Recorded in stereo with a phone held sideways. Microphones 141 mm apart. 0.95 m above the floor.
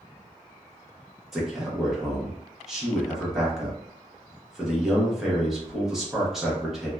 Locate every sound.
1.3 s a man speaking: 5° right (ahead or behind), 1.0 m